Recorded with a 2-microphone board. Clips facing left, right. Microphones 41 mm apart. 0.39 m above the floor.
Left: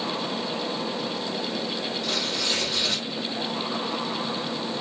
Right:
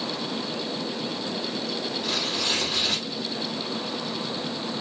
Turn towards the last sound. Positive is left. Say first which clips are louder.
# right 1 dB
turn(degrees=-15)  # may be behind; listen again after turning